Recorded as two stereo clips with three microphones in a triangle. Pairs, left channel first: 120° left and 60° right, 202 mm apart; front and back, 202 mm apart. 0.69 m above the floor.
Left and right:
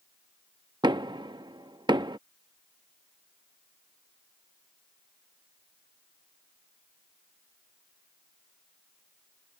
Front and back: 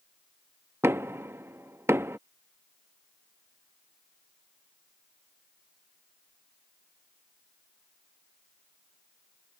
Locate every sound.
0.8 s knocking: 110° right